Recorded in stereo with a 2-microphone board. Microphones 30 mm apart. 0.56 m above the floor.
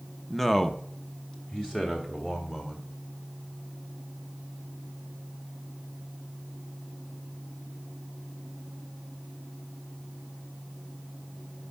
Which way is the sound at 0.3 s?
5° left (ahead or behind).